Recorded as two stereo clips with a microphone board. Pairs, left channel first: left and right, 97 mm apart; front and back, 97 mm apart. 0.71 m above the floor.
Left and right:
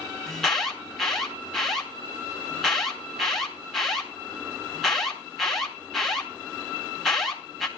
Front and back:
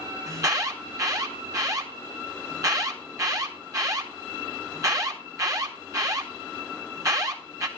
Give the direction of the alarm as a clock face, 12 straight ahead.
6 o'clock.